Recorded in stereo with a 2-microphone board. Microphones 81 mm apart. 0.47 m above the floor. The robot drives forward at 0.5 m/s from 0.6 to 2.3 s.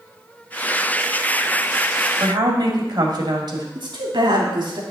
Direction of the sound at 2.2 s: 65° right (ahead or behind).